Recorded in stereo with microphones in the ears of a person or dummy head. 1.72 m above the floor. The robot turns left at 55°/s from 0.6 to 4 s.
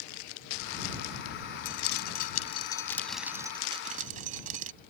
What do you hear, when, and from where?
1.6 s dripping: 80° left; by 4.7 s 45° right (ahead or behind)